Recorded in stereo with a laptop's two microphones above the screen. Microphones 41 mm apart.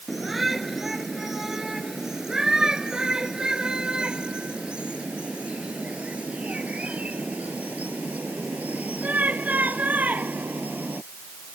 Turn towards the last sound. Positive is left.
turn(degrees=-45)  # may be behind; listen again after turning